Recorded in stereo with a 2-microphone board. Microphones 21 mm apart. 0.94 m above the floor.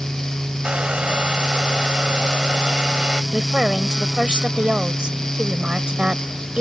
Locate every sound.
0.6 s a hair dryer: 55° right (ahead or behind)
3.3 s a woman speaking: 55° right (ahead or behind)